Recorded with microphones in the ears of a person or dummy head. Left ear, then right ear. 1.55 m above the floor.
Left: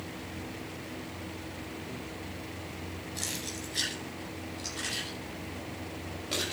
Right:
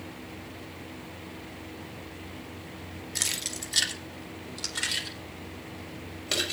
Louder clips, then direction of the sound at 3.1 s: Right 6 dB; 70° right (ahead or behind).